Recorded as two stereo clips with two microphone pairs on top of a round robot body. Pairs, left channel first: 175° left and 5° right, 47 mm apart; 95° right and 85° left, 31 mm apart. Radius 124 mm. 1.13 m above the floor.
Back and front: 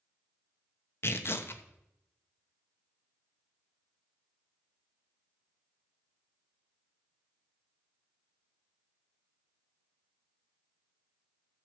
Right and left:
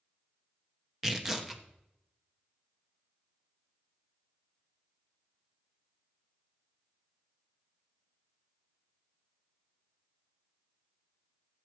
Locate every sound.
1.0 s tearing paper: 165° left, 1.1 m